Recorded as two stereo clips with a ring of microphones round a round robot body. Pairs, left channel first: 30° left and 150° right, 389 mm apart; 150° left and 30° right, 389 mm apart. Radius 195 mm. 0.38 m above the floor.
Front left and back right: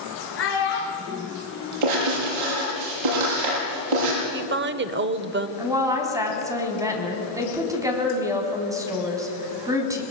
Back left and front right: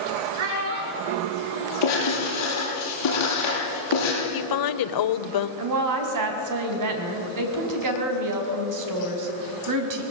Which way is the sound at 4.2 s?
155° left.